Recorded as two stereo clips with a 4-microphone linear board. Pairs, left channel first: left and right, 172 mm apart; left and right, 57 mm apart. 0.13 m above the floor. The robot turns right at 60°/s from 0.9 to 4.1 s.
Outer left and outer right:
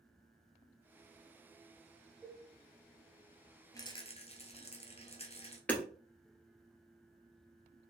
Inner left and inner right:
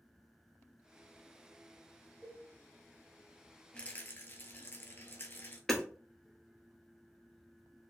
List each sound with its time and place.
2.2 s a cowbell: 10° right (ahead or behind), 1.9 m; by 2.5 s centre (ahead or behind), 1.9 m
3.7 s a rattle: 20° left (ahead or behind), 0.9 m; by 5.6 s 40° left (ahead or behind), 0.9 m
5.7 s hammering: 10° left (ahead or behind), 1.2 m